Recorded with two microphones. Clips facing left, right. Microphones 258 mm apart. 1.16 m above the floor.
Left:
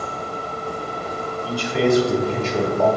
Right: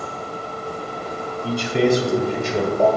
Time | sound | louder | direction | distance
1.4 | a man speaking | right 1 dB | 30° right (ahead or behind) | 2.5 m